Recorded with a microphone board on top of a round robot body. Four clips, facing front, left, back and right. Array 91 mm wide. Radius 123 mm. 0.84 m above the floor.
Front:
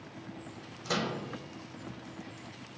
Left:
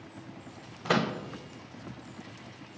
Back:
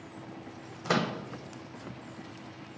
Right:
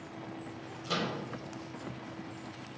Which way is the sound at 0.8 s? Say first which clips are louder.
Left 7 dB, back 4 dB; 125° left.